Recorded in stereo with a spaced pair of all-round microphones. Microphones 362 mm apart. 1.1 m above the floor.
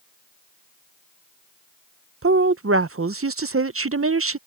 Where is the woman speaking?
40° right (ahead or behind).